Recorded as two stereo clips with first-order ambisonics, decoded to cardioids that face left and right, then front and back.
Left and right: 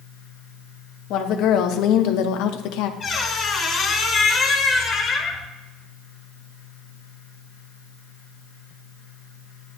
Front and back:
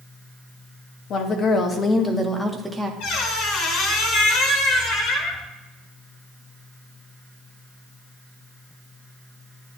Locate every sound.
1.1 s a woman speaking: 50° left, 1.4 m; by 2.9 s 95° left, 1.0 m
3.0 s a squeak: 20° left, 1.9 m